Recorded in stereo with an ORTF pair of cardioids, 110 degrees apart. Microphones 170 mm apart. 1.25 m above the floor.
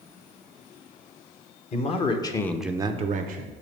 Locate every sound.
1.7 s a man speaking: 40° left, 1.1 m; by 3.5 s 75° right, 0.7 m